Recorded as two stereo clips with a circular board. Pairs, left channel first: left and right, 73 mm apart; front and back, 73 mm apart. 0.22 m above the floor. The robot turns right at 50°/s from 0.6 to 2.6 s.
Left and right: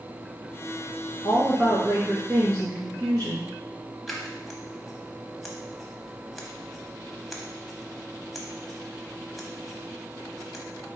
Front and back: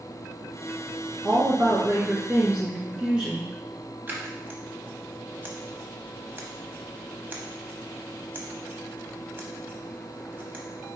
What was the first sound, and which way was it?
A woman speaking, 170° right.